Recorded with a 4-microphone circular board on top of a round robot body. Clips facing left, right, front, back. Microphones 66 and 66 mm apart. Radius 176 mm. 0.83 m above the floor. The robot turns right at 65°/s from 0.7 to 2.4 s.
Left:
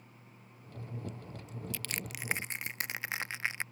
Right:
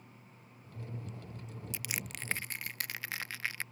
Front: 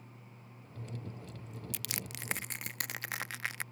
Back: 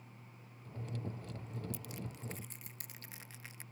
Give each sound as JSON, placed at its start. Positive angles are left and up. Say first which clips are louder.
{"t": 1.7, "sound": "crushing", "louder": "right 1 dB, front 2 dB", "azimuth_deg": -20}